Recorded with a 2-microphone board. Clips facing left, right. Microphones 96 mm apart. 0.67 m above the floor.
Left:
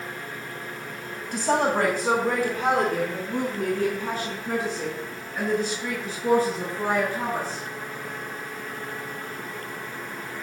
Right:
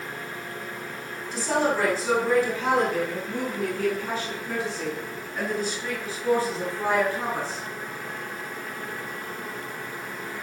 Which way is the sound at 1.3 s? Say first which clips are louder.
Left 2 dB; 50° left (ahead or behind).